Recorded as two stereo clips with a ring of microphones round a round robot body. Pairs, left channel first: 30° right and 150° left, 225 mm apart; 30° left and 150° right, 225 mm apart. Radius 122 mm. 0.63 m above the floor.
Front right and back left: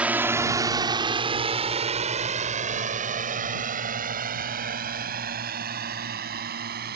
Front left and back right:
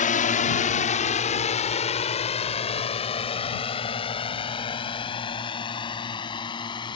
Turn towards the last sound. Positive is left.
turn(degrees=100)